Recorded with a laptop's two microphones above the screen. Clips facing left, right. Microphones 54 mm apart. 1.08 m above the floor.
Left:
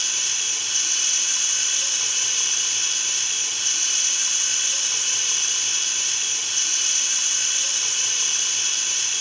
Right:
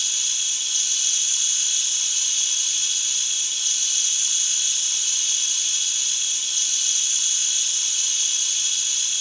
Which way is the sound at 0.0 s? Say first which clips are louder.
Left 2 dB; 50° left (ahead or behind).